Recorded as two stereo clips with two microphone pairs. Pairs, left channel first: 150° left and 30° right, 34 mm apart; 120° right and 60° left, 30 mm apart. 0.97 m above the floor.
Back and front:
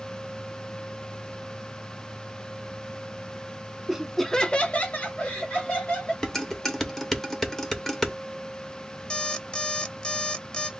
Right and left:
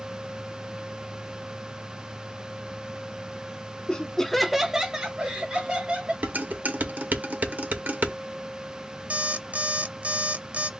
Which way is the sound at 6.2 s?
70° left.